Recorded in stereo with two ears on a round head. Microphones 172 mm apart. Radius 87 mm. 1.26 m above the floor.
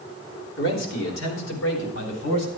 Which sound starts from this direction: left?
A man speaking, at 0.6 s.